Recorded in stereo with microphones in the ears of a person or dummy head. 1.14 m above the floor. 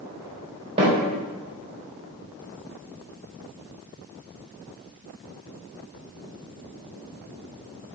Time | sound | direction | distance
0.8 | a snare drum | 35° right (ahead or behind) | 3.5 m